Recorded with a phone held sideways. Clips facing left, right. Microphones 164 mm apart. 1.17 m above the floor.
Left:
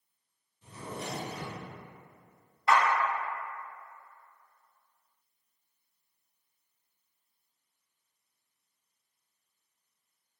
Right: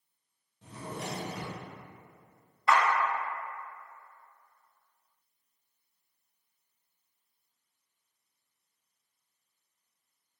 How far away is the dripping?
I don't hear dripping.